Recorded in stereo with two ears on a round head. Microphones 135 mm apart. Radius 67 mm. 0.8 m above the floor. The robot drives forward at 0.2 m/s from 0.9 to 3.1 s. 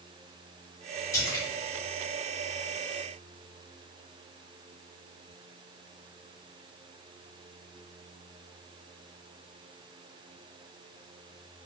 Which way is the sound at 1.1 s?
20° left (ahead or behind).